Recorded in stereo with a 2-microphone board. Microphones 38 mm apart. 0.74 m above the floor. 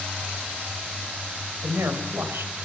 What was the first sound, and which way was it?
A woman speaking, 80° right.